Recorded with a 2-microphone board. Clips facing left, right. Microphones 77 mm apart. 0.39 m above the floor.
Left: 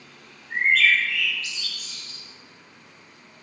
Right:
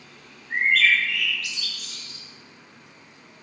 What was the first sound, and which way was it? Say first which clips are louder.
A bird: even; 75° right (ahead or behind).